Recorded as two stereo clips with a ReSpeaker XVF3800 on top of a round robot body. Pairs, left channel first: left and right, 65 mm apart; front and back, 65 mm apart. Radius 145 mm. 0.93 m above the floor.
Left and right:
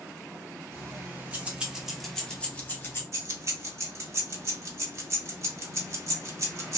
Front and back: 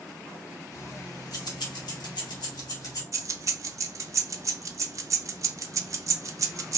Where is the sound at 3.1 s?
135° right, 0.6 m.